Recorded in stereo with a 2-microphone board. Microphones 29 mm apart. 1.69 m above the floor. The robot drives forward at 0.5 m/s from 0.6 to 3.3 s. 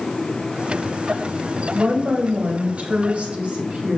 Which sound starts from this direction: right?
A woman speaking, at 1.7 s.